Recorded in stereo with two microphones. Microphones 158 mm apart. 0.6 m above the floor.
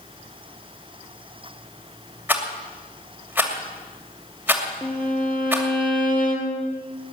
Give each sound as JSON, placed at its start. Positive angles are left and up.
{"t": 2.3, "sound": "a rattle", "side_deg": -10, "distance_m": 2.5}
{"t": 4.8, "sound": "a violin", "side_deg": 10, "distance_m": 3.0}